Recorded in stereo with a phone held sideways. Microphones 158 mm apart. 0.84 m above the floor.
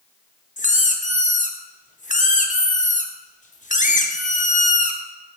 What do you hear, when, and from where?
0.6 s a squeak: 50° left (ahead or behind), 0.6 m